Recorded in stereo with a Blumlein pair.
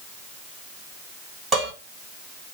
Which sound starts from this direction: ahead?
Dishes clattering, at 1.5 s.